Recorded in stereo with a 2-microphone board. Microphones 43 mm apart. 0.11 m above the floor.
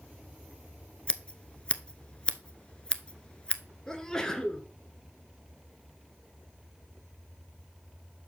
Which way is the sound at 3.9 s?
15° left (ahead or behind).